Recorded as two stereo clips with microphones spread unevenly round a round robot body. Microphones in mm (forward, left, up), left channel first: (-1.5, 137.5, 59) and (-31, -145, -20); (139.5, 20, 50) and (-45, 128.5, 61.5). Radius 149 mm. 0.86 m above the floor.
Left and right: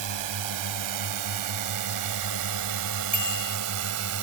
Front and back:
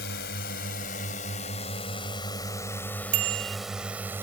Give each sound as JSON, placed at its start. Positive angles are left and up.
{"t": 0.0, "sound": "a drone", "azimuth_deg": -85}
{"t": 3.1, "sound": "a bicycle bell", "azimuth_deg": 170}